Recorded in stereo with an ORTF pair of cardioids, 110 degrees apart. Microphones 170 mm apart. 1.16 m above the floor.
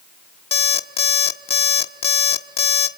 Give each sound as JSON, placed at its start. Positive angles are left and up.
{"t": 0.5, "sound": "an alarm clock", "azimuth_deg": 40, "distance_m": 1.4}